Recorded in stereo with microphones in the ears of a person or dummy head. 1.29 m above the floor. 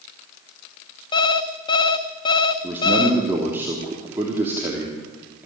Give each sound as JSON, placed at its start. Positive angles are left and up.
{"t": 1.1, "sound": "an alarm clock", "side_deg": 25, "distance_m": 1.0}
{"t": 2.6, "sound": "a man speaking", "side_deg": -10, "distance_m": 3.0}